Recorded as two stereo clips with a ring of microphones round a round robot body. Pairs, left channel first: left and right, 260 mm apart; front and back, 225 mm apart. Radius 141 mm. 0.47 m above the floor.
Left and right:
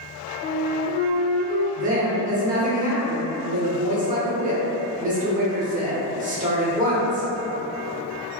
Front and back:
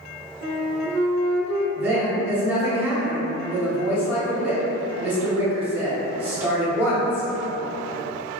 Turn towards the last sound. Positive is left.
turn(degrees=-105)